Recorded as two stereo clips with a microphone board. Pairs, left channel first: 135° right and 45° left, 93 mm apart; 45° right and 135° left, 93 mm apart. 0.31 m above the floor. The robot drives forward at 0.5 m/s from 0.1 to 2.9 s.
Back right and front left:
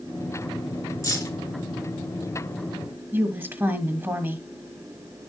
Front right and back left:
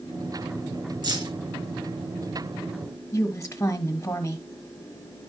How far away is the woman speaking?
About 1.3 m.